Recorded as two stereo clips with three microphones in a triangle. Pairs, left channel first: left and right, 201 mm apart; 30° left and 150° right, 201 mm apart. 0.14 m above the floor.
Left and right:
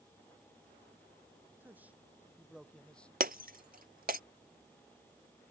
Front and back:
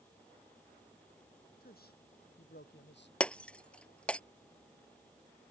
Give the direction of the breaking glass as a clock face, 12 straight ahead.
2 o'clock.